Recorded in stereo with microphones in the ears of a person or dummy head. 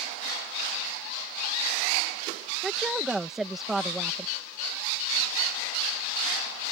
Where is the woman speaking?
Centre (ahead or behind).